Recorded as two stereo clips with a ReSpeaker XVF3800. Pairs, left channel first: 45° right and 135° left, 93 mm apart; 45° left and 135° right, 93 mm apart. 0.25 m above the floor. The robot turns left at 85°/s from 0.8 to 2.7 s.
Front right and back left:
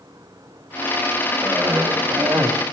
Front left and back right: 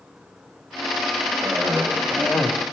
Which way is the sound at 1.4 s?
175° left.